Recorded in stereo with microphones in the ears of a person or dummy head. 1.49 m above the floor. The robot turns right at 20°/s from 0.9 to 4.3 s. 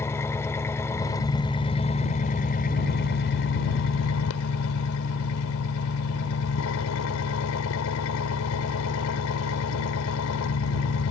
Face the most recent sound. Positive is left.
turn(degrees=85)